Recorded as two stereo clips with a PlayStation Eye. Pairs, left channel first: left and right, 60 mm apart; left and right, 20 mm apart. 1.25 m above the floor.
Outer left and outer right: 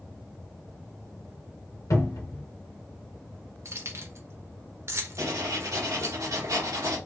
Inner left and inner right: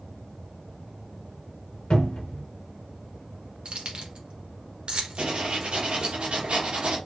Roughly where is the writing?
Right.